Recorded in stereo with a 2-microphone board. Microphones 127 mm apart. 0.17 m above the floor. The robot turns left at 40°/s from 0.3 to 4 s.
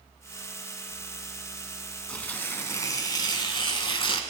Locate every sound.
2.1 s tearing paper: 165° left, 1.0 m; by 4.2 s 90° left, 1.0 m